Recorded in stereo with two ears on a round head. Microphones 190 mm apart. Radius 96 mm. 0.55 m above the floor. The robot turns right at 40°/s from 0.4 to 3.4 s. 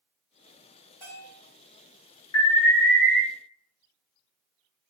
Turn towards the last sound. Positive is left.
turn(degrees=65)